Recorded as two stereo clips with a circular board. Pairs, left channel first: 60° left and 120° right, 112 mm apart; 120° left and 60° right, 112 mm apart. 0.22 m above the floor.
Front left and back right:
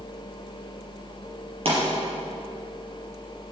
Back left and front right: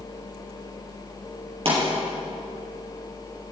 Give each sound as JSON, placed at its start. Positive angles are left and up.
{"t": 1.6, "sound": "a pop", "azimuth_deg": -90, "distance_m": 4.5}